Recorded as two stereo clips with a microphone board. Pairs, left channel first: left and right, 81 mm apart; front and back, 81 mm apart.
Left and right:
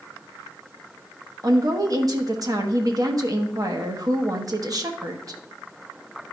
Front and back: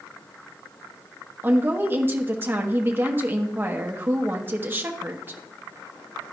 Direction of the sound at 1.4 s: 120° right.